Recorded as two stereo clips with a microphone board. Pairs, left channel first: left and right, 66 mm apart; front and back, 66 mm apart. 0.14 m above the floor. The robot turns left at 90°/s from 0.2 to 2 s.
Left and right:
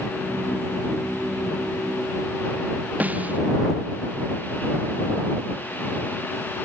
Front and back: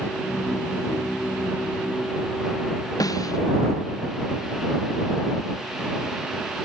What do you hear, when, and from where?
3.0 s a snare drum: 25° right